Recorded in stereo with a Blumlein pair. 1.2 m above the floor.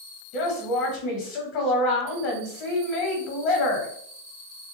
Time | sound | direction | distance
0.3 | a woman speaking | 40° left | 1.1 m